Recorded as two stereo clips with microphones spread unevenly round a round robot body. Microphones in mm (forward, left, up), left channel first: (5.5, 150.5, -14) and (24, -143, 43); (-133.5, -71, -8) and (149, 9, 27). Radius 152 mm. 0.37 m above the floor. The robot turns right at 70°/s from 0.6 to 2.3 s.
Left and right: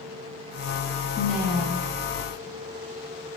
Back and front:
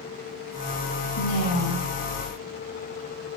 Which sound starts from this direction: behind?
A woman speaking, at 1.2 s.